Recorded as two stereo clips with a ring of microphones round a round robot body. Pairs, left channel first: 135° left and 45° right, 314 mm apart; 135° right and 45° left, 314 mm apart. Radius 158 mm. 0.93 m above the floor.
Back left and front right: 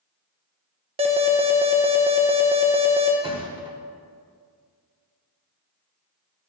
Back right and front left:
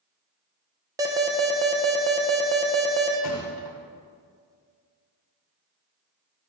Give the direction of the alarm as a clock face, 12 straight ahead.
12 o'clock.